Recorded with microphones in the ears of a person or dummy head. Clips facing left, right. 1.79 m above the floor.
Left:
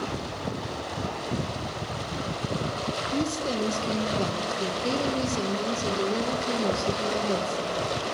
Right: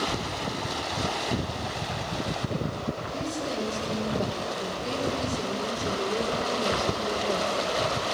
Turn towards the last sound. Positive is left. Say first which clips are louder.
# left 6 dB
turn(degrees=65)  # may be behind; listen again after turning